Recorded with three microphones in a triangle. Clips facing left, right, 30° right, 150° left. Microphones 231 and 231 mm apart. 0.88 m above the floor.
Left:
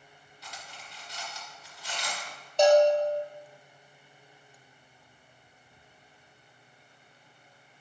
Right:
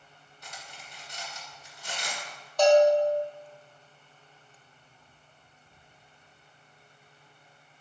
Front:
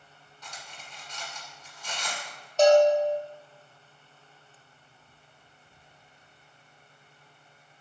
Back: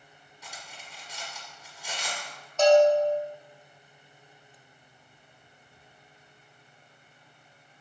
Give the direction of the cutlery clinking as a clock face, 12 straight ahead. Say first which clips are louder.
Even, even; 4 o'clock.